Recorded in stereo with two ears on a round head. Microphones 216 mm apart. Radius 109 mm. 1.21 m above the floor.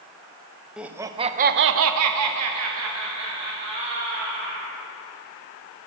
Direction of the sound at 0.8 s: 5° right (ahead or behind).